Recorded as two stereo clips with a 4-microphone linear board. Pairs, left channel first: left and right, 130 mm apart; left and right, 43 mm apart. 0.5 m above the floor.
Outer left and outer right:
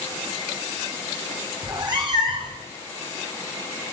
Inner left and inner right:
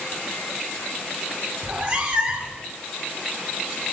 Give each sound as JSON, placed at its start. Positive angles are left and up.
{"t": 1.6, "sound": "a cat meowing", "side_deg": -35, "distance_m": 0.6}